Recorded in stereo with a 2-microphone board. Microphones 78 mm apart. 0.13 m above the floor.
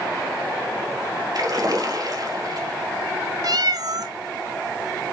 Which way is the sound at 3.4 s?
60° right (ahead or behind).